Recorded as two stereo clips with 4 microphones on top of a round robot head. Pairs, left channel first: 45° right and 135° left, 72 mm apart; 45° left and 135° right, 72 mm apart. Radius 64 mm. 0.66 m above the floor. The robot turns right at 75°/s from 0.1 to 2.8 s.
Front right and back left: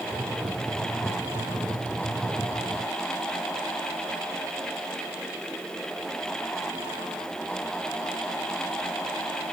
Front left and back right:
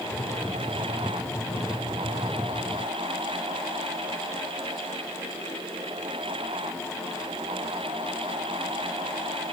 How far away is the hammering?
No hammering in this recording.